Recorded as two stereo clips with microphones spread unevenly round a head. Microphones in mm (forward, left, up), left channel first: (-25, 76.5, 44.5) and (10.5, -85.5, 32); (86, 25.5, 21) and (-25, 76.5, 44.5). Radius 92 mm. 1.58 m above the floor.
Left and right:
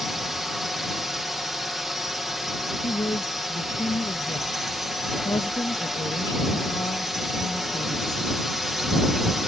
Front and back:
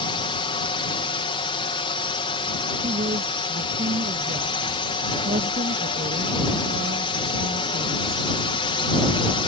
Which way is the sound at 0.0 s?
10° left.